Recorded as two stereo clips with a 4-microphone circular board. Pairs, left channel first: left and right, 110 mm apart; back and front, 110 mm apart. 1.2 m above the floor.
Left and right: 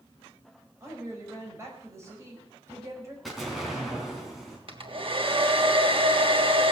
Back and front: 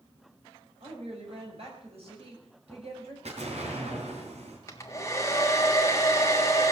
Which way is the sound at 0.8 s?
25° right.